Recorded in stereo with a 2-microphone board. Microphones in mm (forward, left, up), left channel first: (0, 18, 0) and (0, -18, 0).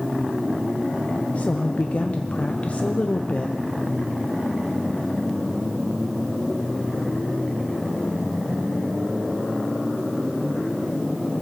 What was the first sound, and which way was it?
A woman speaking, 40° left (ahead or behind).